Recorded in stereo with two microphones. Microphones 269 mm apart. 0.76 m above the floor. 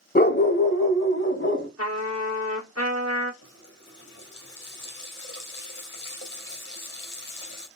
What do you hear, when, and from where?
0.1 s a dog barking: 35° left (ahead or behind), 0.6 m; by 1.7 s 45° left (ahead or behind), 1.3 m
1.8 s a trumpet: 65° right (ahead or behind), 1.7 m
3.4 s a running tap: 55° left (ahead or behind), 2.5 m